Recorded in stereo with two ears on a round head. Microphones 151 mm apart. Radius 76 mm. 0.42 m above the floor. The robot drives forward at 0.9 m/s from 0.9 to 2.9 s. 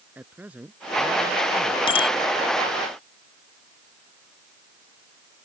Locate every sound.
0.1 s a man speaking: 10° right (ahead or behind)
1.9 s a bicycle bell: 30° left (ahead or behind)